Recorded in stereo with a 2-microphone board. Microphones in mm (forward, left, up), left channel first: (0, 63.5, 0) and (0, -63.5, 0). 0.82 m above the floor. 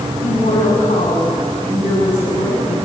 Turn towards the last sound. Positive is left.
turn(degrees=85)